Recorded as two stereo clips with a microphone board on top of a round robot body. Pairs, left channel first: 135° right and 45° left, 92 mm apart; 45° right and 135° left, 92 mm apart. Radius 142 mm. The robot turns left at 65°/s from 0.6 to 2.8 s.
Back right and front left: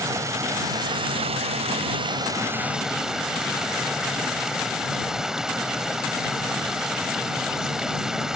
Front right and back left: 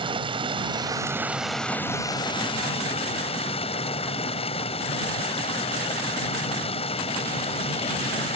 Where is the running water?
105° left; by 8.4 s 40° right.